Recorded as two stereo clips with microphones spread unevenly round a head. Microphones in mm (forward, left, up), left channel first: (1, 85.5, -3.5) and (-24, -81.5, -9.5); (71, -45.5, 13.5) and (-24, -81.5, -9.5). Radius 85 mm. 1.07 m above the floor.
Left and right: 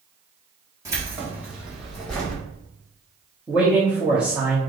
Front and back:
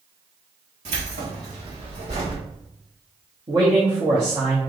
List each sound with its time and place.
0.8 s keys jangling: 170° right, 1.6 m; by 2.4 s 165° left, 2 m
3.5 s a man speaking: straight behind, 1.0 m